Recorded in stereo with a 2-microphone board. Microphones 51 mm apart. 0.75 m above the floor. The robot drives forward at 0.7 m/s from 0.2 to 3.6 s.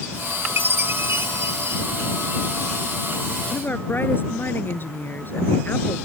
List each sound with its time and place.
0.6 s a chime: 50° right (ahead or behind); by 1.8 s 70° right (ahead or behind)
3.5 s a woman speaking: 40° left (ahead or behind)